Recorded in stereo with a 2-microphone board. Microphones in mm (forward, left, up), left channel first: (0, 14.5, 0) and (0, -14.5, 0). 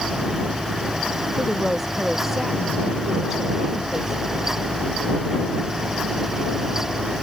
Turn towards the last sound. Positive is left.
turn(degrees=-15)  # may be behind; listen again after turning